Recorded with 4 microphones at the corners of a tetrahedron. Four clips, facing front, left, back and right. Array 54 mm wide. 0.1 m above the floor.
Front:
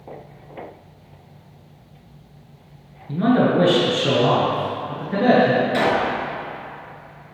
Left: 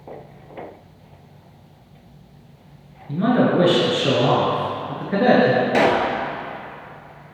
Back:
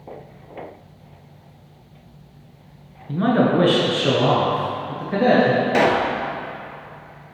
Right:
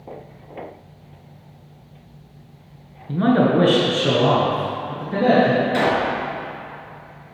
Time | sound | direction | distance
3.1 | a man speaking | 115° right | 1.2 m
5.7 | a pop | 130° left | 0.7 m